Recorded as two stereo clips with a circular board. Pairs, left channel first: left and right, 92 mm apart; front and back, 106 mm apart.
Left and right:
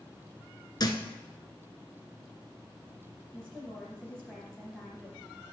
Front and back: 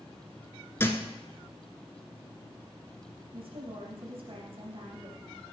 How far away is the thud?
About 1.0 m.